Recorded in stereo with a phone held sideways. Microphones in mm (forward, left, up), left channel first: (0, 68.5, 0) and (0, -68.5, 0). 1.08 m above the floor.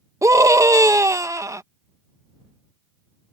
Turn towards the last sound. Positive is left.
turn(degrees=-25)  # may be behind; listen again after turning